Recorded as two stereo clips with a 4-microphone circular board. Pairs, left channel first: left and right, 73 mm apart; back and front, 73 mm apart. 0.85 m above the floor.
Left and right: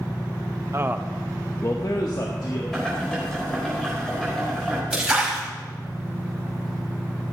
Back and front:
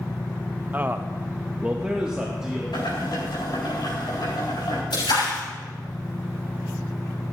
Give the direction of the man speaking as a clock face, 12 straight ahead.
2 o'clock.